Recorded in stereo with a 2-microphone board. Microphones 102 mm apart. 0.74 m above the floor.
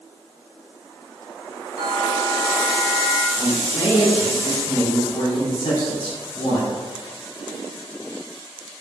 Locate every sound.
1.8 s a bell: 25° left (ahead or behind), 1.8 m
3.4 s a man speaking: 45° left (ahead or behind), 1.3 m